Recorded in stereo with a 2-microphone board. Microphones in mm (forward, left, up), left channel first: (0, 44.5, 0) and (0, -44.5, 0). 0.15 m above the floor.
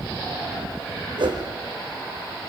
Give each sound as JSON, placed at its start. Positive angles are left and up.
{"t": 1.2, "sound": "a whoosh", "side_deg": -65, "distance_m": 3.5}